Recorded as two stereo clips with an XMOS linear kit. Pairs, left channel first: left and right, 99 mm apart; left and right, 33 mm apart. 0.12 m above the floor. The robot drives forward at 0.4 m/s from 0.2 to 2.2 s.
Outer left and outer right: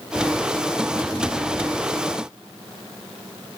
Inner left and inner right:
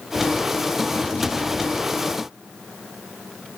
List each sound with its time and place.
Only background noise.